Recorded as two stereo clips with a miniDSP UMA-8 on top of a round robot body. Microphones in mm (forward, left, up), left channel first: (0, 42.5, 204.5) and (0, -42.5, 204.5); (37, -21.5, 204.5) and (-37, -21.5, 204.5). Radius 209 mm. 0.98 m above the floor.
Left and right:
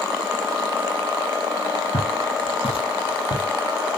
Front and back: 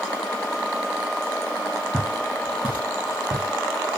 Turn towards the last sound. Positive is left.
turn(degrees=120)